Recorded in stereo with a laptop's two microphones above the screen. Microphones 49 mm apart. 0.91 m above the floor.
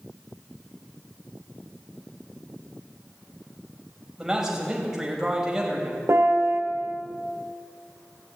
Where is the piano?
80° right, 2.5 m.